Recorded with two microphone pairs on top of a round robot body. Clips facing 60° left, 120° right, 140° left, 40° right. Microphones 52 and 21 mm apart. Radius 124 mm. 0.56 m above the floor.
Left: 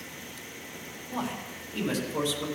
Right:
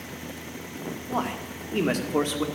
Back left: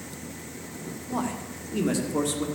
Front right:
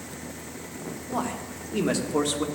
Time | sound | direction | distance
1.1 | a man speaking | 125° right | 1.7 m